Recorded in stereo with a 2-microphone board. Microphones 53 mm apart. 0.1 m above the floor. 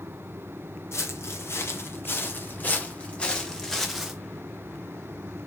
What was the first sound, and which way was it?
Footsteps, 55° left (ahead or behind).